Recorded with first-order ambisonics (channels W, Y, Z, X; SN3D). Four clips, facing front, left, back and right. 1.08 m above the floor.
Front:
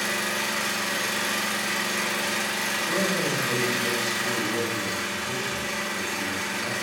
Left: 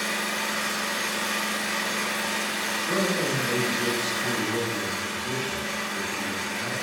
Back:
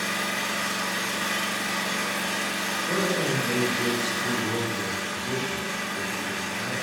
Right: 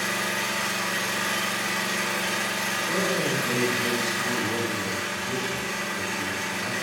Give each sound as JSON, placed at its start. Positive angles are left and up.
{"t": 0.0, "sound": "an engine running", "azimuth_deg": -10, "distance_m": 0.8}
{"t": 2.9, "sound": "a man speaking", "azimuth_deg": 145, "distance_m": 0.7}